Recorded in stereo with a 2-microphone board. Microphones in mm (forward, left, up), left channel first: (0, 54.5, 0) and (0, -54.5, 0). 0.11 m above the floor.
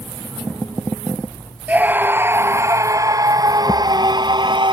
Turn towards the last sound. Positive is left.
turn(degrees=-45)  # may be behind; listen again after turning